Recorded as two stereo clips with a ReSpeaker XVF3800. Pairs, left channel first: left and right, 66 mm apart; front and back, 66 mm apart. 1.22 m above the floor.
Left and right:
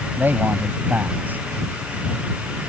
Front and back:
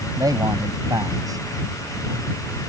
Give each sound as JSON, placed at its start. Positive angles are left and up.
{"t": 0.2, "sound": "a man speaking", "azimuth_deg": -155}